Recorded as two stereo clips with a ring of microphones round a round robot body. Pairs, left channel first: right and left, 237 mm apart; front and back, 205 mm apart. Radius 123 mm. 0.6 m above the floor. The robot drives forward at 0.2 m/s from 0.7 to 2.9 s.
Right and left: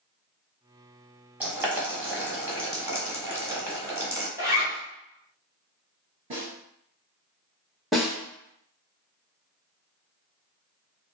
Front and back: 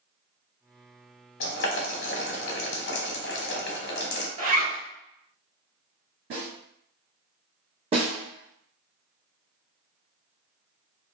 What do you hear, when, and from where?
1.4 s boiling: 10° left, 1.0 m
4.4 s a zipper: 170° left, 1.0 m
6.3 s a snare drum: 160° left, 1.9 m
7.9 s a snare drum: straight behind, 1.1 m